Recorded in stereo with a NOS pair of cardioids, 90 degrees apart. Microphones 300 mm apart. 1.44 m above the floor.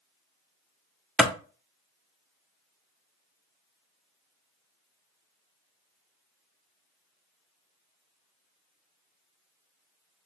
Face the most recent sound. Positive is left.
turn(degrees=-5)